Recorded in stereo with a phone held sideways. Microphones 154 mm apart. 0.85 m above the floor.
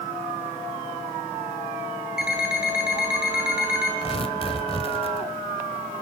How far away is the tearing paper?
About 1.6 m.